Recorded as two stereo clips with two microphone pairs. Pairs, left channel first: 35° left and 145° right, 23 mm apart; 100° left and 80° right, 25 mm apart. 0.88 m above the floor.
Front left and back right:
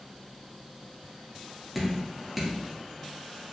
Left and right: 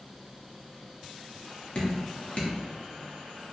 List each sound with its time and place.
1.8 s dripping: 125° left, 1.2 m